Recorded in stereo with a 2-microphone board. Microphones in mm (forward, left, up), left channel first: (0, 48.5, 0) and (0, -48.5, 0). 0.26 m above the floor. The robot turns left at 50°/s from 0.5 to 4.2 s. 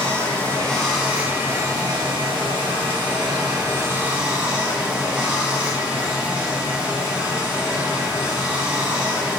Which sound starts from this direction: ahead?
Running water, at 0.0 s.